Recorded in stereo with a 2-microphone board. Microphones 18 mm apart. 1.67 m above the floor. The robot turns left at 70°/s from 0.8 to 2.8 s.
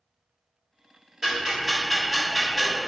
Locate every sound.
1.2 s ticking: 30° right (ahead or behind), 1.0 m; by 2.8 s 5° left (ahead or behind), 1.0 m